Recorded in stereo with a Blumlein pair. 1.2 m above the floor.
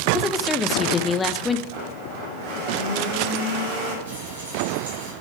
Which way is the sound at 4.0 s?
70° right.